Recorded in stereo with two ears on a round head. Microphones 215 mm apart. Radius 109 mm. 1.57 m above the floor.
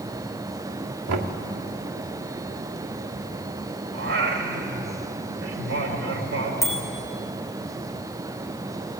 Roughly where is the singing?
Right.